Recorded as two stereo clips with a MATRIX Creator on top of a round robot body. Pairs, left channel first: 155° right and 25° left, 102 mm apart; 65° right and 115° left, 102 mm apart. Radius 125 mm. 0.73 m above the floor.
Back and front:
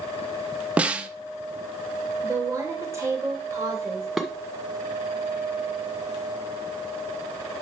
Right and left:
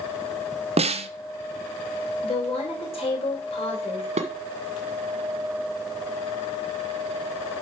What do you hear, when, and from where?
0.8 s a snare drum: 100° left, 0.8 m
2.2 s a woman speaking: 40° right, 3 m
4.2 s dishes clattering: 110° left, 1.7 m